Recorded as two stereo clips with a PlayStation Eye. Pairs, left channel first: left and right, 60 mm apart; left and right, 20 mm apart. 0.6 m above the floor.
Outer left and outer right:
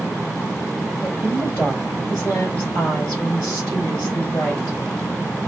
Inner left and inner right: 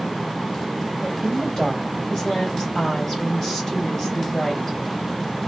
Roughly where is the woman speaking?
Left.